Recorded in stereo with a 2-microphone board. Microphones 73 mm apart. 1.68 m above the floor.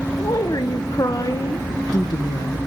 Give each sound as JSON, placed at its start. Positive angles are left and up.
{"t": 0.2, "sound": "a woman speaking", "side_deg": 60, "distance_m": 1.2}